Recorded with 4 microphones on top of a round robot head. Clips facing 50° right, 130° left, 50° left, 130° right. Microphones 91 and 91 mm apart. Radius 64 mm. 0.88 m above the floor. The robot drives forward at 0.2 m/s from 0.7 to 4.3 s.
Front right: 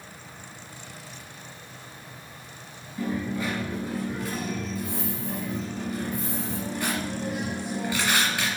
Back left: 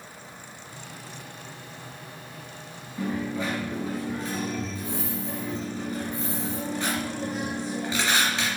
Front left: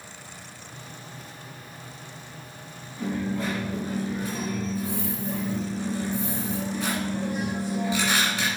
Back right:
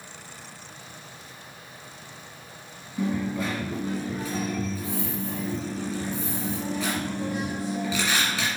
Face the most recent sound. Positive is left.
turn(degrees=-160)